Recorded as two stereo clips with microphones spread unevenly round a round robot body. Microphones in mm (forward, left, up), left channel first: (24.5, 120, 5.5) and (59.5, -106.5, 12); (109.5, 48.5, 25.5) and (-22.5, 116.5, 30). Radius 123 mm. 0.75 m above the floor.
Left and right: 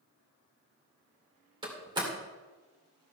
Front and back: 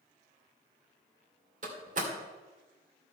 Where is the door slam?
155° right, 2.5 m.